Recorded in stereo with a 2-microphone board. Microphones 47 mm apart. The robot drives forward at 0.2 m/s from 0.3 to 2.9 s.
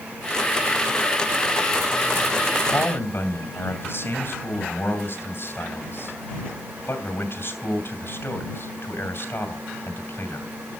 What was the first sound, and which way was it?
A man speaking, 55° left (ahead or behind).